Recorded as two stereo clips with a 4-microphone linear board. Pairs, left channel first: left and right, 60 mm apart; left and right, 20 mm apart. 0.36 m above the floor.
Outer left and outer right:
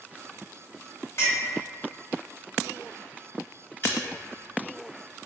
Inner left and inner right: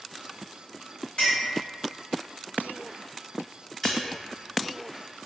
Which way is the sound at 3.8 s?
35° left (ahead or behind).